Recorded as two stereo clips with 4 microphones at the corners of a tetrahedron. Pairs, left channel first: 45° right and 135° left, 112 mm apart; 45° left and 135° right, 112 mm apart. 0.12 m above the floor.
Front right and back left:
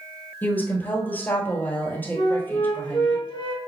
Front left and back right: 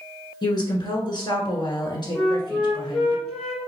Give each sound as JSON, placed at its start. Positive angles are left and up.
{"t": 0.4, "sound": "a woman speaking", "azimuth_deg": 20, "distance_m": 1.6}
{"t": 2.1, "sound": "a flute", "azimuth_deg": -40, "distance_m": 1.5}